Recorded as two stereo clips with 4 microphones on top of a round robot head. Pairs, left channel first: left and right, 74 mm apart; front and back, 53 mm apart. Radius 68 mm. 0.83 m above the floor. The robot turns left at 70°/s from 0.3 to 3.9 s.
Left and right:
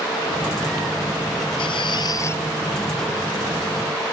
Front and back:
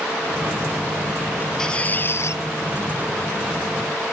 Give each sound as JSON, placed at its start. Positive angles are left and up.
{"t": 1.6, "sound": "a squeak", "azimuth_deg": 80}